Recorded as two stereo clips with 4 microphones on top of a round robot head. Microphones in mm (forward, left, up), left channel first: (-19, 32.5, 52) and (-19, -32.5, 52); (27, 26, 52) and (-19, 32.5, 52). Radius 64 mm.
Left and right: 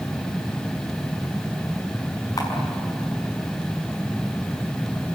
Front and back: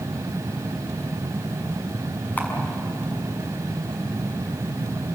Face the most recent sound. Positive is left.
turn(degrees=45)